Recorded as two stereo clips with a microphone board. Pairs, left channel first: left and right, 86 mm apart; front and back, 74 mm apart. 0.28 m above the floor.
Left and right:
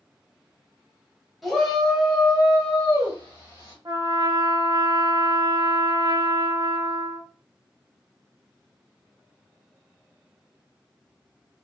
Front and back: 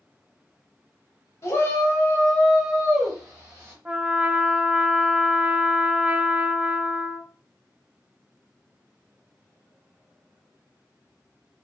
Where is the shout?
Straight ahead, 1.1 m; by 3.8 s 125° left, 1.1 m.